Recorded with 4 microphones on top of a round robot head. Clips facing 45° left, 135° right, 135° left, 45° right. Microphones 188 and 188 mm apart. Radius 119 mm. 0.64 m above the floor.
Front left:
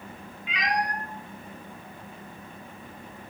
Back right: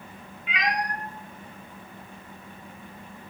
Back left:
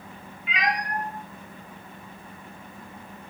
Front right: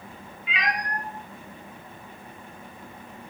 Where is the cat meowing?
Straight behind, 0.5 m; by 3.3 s 85° right, 1.5 m.